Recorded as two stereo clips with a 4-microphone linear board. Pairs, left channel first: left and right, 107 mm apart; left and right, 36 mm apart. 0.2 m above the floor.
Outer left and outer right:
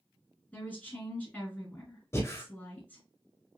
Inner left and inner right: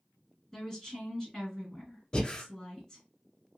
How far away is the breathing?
About 1.0 m.